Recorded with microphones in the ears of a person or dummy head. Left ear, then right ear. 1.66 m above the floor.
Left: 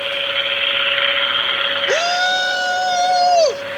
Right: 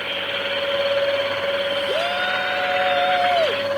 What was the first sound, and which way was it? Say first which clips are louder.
A shout: left 5 dB; 80° left.